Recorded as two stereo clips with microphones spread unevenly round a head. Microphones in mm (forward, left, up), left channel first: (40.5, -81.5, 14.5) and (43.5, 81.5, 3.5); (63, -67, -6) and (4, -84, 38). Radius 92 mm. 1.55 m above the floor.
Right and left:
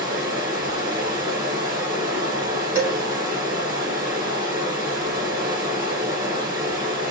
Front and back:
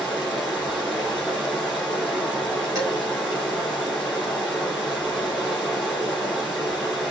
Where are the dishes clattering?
165° left, 3 m.